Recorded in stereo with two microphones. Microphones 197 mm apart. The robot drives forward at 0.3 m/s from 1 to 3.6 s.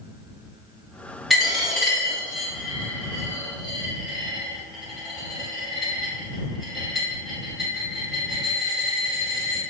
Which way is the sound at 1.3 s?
Centre (ahead or behind).